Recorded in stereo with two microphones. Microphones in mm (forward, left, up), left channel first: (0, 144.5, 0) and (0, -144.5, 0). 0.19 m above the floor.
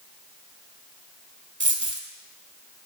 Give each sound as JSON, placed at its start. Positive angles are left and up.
{"t": 1.6, "sound": "a dropped coin", "side_deg": -45, "distance_m": 0.7}